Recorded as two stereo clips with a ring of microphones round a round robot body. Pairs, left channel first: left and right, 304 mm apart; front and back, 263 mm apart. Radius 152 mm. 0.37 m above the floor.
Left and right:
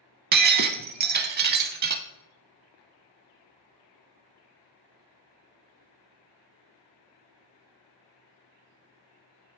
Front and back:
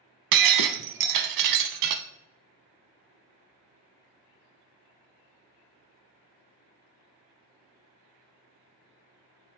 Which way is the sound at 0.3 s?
150° right.